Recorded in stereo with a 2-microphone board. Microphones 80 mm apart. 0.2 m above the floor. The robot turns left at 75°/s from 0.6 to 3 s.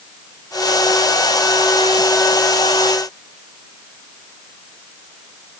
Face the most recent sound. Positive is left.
No sound to turn to.